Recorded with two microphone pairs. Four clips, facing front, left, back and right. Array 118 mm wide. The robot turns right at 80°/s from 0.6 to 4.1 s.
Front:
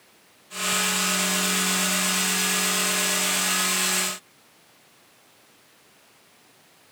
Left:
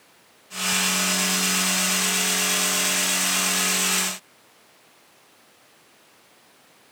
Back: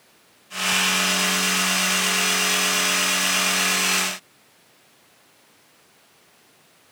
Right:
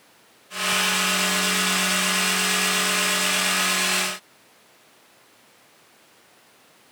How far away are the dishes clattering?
I don't hear dishes clattering.